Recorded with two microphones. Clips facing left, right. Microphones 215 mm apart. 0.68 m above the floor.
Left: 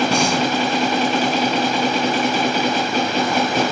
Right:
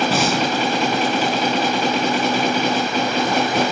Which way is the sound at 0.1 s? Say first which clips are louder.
Left 1 dB; 5° right (ahead or behind).